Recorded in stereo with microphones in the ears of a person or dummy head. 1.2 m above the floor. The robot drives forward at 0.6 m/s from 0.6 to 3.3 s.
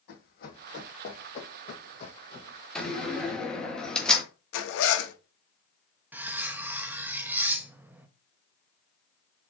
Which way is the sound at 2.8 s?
5° left (ahead or behind).